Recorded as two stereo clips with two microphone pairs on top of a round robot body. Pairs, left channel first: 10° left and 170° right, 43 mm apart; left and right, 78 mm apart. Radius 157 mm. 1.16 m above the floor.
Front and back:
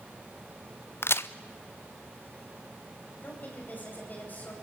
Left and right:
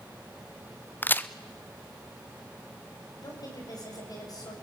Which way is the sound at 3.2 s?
55° left.